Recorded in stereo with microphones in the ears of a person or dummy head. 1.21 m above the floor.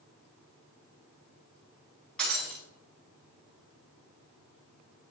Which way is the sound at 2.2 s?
Centre (ahead or behind).